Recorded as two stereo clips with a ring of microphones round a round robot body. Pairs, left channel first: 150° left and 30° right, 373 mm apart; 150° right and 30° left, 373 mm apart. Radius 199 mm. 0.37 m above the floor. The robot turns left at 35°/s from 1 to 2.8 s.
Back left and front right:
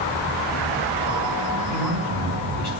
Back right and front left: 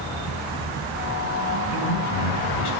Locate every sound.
1.7 s a man speaking: 170° right, 3.5 m; by 2.7 s 150° left, 3.5 m